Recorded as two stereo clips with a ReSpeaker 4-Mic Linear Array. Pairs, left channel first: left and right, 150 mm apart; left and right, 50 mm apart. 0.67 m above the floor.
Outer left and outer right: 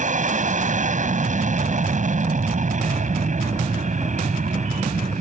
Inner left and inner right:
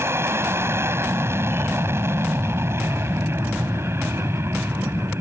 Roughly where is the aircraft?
Right.